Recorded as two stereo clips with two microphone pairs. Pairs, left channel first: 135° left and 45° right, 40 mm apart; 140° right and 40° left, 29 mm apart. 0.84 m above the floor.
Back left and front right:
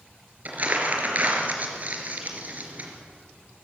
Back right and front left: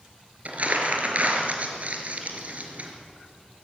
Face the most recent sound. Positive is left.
turn(degrees=0)